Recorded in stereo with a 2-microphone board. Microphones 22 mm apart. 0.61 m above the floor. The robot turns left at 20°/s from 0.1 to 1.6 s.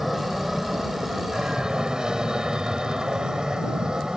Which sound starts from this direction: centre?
An aircraft, at 0.0 s.